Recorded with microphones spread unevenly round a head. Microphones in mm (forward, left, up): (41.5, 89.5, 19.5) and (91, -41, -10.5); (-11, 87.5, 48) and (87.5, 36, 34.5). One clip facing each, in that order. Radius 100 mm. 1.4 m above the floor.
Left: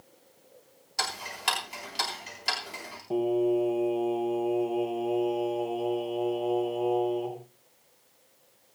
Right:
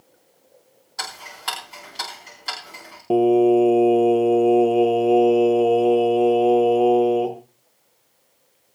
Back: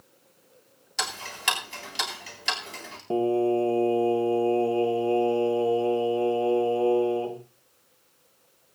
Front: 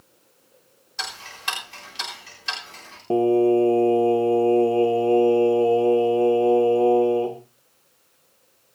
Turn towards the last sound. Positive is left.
turn(degrees=-100)